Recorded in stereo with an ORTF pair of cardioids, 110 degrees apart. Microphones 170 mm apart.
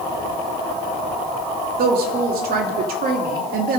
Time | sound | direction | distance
1.8 | a woman speaking | 60° right | 2.5 m